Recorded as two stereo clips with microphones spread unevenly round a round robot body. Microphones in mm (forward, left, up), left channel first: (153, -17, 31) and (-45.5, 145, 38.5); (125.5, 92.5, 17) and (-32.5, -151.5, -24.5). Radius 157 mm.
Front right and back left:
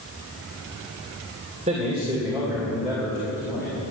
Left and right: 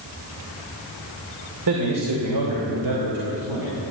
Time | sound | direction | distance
1.7 | a man speaking | 150° right | 2.5 m